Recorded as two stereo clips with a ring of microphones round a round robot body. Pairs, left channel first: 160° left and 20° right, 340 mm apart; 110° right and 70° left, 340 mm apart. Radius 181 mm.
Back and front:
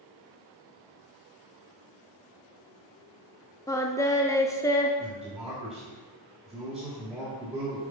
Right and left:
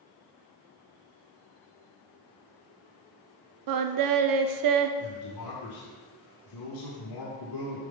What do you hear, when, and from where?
3.7 s singing: 75° left, 0.6 m
5.0 s a man speaking: 110° right, 1.6 m